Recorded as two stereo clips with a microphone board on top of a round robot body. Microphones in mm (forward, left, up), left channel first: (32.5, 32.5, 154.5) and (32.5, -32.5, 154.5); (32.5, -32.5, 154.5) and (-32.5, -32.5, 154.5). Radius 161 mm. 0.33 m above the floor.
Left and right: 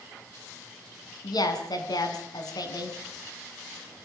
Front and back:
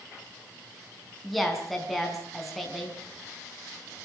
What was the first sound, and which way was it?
A woman speaking, 90° left.